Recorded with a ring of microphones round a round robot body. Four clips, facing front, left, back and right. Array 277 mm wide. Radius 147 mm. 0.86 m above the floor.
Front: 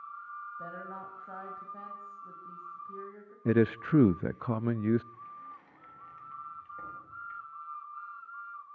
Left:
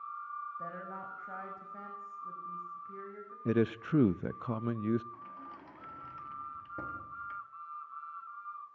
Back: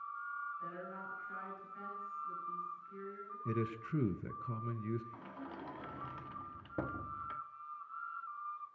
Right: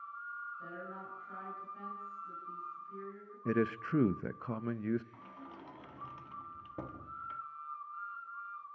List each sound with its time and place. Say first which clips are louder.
0.6 s a woman speaking: left 3 dB, front 3 dB; 40° left, 6.5 m
3.5 s a man speaking: left 2 dB, front 13 dB; 10° left, 0.6 m
5.1 s a sliding door: left 3 dB, front 1 dB; 170° right, 1.4 m